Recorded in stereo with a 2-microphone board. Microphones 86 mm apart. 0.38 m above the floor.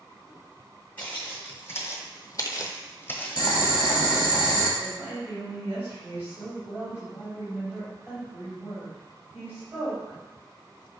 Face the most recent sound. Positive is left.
turn(degrees=-20)  # may be behind; listen again after turning